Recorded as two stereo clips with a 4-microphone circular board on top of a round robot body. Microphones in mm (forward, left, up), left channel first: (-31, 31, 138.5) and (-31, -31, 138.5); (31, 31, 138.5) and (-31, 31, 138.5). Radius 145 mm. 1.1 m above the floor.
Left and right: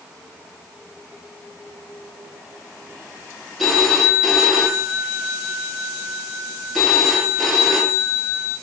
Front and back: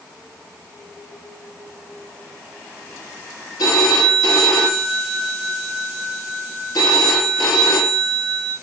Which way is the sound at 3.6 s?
Straight ahead.